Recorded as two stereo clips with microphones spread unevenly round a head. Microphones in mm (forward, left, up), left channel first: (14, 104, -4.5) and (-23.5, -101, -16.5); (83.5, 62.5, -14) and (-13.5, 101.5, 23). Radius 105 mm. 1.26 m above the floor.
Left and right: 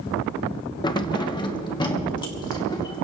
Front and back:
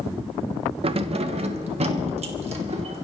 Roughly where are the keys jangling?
Behind left.